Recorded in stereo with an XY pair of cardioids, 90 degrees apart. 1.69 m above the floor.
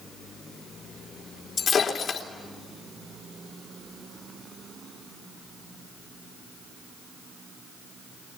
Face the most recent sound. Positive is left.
turn(degrees=50)